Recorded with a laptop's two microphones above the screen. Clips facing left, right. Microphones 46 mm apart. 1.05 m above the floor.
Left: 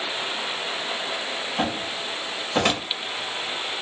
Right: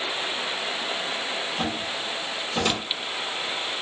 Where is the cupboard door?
65° left (ahead or behind), 1.5 m.